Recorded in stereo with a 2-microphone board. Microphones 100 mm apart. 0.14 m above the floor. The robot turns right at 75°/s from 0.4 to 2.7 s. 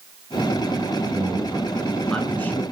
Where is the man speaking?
20° right (ahead or behind), 1.1 m; by 2.6 s 20° left (ahead or behind), 1.1 m.